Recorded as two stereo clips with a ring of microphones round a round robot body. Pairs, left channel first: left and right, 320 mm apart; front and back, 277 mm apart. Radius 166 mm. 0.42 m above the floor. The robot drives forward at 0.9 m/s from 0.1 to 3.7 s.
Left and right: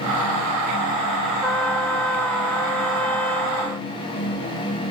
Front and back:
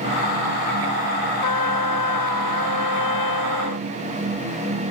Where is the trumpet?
5° left.